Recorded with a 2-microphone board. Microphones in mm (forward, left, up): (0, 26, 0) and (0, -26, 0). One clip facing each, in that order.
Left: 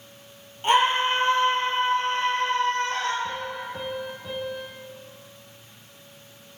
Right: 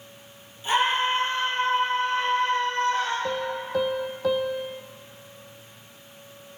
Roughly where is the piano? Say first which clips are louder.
Right 3 dB; right.